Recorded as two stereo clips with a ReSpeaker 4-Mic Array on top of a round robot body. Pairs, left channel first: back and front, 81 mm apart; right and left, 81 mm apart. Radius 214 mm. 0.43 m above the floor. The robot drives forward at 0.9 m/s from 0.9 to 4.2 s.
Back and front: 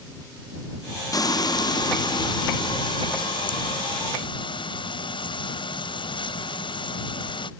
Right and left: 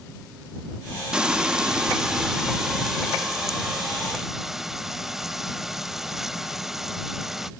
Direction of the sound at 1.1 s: 170° left.